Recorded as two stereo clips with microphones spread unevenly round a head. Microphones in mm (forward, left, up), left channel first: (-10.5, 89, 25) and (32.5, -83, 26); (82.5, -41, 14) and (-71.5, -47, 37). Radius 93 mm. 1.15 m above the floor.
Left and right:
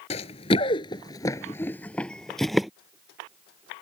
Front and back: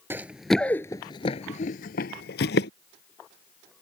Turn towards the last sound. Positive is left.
turn(degrees=15)